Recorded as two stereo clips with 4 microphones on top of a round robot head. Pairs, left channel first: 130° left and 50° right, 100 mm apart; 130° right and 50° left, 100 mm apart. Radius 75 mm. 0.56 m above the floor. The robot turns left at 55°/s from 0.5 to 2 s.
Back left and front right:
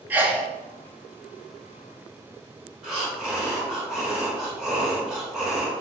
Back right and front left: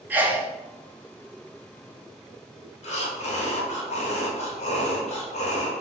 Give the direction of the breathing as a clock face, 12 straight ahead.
4 o'clock.